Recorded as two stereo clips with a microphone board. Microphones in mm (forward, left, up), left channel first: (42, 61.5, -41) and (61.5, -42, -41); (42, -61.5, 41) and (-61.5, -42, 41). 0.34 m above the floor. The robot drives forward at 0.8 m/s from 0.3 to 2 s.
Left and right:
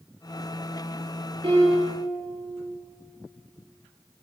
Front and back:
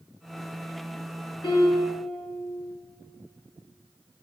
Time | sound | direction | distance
1.4 | a piano | 45° right | 5 m